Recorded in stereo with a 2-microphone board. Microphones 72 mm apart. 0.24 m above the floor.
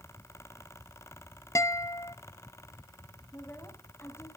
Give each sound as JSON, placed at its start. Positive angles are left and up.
{"t": 1.6, "sound": "a guitar", "side_deg": 40, "distance_m": 0.7}
{"t": 3.3, "sound": "a woman speaking", "side_deg": 40, "distance_m": 2.0}